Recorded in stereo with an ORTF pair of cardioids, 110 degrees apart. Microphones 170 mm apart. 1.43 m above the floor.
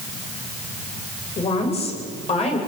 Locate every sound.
1.4 s a woman speaking: 35° left, 7.5 m